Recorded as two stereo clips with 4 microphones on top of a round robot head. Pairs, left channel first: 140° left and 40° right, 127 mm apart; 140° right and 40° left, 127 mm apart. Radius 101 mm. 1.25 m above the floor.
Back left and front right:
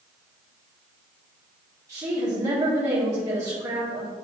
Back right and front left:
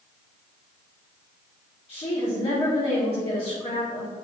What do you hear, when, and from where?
1.9 s a woman speaking: 100° right, 2.5 m